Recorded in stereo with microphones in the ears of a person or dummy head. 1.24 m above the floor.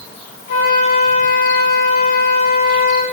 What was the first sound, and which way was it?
A flute, 40° left (ahead or behind).